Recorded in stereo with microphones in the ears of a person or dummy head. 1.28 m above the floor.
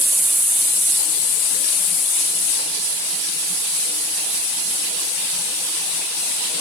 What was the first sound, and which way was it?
Only background noise.